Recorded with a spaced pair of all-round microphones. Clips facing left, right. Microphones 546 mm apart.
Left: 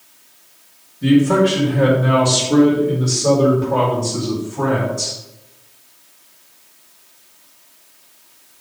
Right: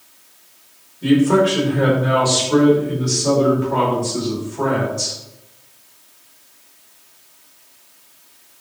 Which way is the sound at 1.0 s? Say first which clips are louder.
Left 1 dB; 45° left (ahead or behind).